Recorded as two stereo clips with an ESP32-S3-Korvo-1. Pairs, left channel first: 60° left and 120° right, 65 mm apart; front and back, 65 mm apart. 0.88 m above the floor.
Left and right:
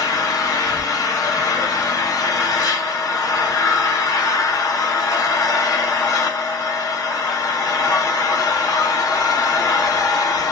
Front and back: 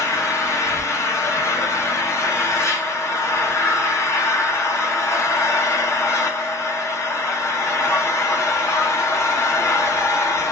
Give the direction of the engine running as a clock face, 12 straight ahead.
11 o'clock.